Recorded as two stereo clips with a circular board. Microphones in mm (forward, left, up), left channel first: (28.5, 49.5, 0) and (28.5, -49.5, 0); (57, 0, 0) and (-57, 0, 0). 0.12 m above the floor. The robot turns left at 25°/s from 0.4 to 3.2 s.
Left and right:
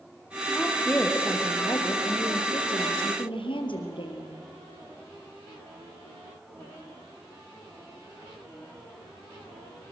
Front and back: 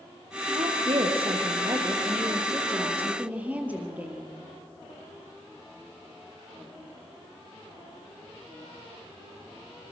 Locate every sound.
0.5 s a woman speaking: 170° left, 3.5 m; by 4.3 s 105° left, 3.5 m